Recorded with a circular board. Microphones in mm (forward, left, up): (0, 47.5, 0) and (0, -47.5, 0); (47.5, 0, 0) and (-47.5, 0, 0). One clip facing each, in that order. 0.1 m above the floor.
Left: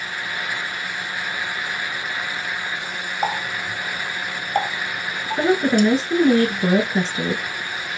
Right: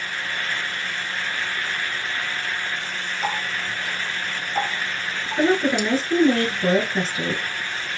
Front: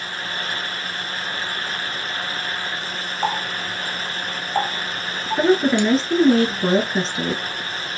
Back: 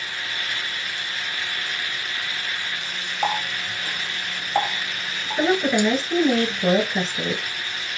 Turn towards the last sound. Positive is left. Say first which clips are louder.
# left 2 dB, front 3 dB
turn(degrees=30)